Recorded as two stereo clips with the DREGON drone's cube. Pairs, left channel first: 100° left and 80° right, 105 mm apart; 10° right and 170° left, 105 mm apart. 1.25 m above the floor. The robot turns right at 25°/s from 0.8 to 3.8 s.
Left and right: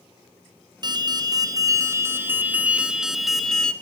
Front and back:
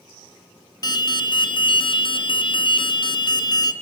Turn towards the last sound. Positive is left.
turn(degrees=25)